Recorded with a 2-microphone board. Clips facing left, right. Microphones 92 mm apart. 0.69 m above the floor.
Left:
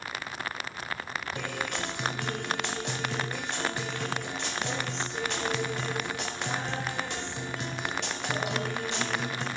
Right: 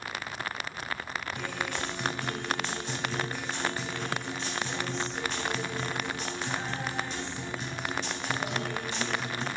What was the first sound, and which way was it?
A guitar, 80° left.